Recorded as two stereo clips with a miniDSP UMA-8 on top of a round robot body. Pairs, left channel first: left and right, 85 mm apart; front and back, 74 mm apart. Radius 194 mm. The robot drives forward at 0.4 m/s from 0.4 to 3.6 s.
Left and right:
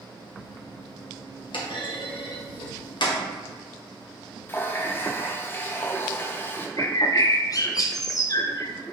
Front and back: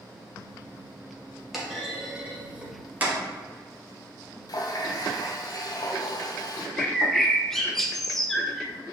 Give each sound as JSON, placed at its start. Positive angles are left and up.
{"t": 1.5, "sound": "a clunk", "azimuth_deg": 95, "distance_m": 1.7}
{"t": 4.5, "sound": "a running tap", "azimuth_deg": 25, "distance_m": 1.1}
{"t": 6.8, "sound": "a bird", "azimuth_deg": 85, "distance_m": 1.0}